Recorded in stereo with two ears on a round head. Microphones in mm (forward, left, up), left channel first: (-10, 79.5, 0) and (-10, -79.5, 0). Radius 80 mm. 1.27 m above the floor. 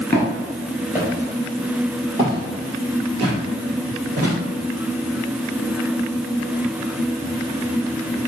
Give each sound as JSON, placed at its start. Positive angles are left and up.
{"t": 0.1, "sound": "footsteps", "side_deg": 10, "distance_m": 1.4}